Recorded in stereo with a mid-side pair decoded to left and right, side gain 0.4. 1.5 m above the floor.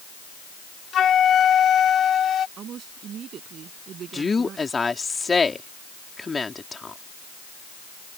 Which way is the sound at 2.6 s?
65° right.